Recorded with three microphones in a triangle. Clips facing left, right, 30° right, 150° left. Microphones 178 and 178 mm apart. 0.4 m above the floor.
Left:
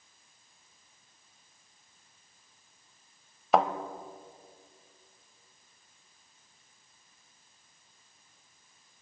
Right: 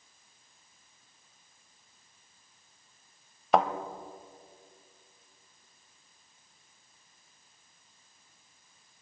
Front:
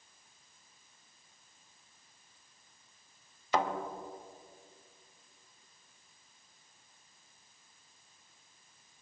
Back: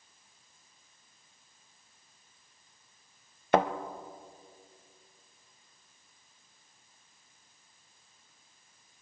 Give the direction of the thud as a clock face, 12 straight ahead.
6 o'clock.